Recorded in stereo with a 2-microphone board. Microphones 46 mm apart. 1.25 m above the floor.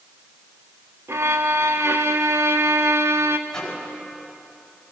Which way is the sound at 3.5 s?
15° left (ahead or behind).